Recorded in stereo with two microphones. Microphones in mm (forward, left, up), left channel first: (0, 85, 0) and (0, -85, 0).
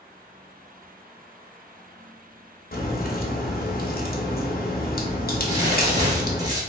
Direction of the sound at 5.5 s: 25° right (ahead or behind).